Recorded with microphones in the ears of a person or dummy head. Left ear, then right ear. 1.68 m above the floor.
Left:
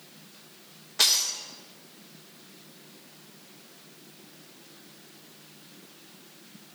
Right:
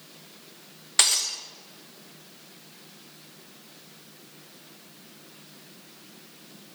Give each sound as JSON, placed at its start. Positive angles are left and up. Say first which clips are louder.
{"t": 1.0, "sound": "breaking glass", "louder": "even", "side_deg": -40, "distance_m": 1.1}